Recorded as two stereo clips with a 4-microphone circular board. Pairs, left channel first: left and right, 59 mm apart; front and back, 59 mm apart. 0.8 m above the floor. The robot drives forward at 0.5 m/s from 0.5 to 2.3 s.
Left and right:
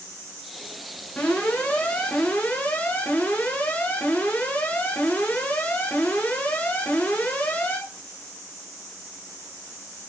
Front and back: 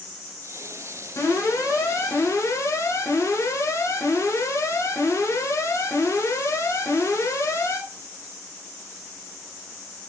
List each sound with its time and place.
1.2 s an alarm: 25° left, 5.5 m